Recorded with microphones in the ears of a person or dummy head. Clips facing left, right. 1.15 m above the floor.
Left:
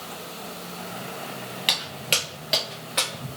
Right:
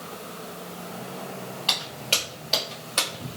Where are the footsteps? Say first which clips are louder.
Left 2 dB; 30° left (ahead or behind), 1.6 m; by 3.3 s 5° left (ahead or behind), 1.1 m.